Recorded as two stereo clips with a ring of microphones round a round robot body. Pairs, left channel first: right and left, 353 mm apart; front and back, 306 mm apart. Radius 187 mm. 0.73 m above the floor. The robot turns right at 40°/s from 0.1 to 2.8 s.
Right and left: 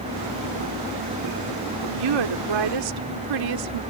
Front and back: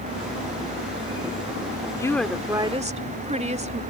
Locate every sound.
1.9 s a woman speaking: 75° left; by 3.8 s 110° left